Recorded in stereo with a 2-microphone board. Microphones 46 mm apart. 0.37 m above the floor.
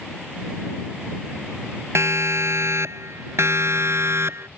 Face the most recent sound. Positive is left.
turn(degrees=-70)  # may be behind; listen again after turning